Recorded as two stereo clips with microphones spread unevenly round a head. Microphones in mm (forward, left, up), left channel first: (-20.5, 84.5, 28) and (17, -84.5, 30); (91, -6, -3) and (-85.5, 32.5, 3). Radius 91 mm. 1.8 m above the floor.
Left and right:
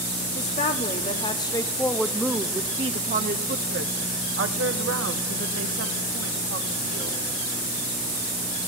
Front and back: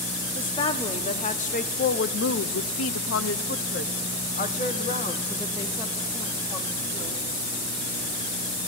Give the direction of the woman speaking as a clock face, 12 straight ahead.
10 o'clock.